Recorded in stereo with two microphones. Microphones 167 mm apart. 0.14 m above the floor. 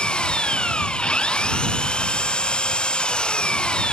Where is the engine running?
5° left (ahead or behind).